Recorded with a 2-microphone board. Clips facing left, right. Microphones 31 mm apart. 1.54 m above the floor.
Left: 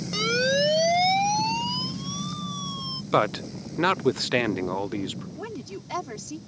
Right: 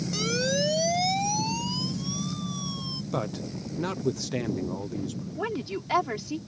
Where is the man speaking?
65° left (ahead or behind).